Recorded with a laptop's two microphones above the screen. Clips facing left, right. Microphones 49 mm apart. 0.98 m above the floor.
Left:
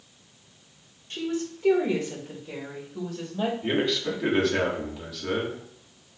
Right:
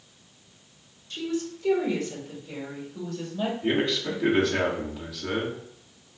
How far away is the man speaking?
About 1.9 m.